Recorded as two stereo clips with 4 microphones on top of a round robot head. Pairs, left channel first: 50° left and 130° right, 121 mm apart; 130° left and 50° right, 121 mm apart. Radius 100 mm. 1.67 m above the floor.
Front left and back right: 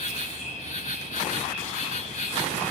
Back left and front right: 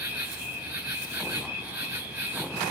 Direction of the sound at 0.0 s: 25° left.